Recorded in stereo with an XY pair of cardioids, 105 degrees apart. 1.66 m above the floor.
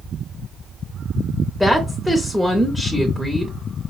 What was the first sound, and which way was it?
A woman speaking, 5° left.